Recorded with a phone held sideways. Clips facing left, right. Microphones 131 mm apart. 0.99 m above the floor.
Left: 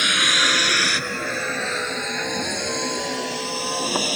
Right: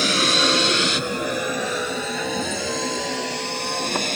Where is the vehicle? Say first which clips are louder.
Right 4 dB; 35° right (ahead or behind); by 4.2 s 5° left (ahead or behind).